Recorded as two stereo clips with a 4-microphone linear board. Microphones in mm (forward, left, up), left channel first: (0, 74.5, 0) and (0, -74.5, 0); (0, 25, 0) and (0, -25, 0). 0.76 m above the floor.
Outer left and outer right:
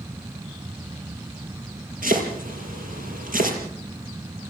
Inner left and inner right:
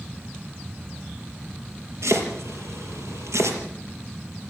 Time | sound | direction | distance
2.0 | chopping | 70° right (ahead or behind) | 5.5 m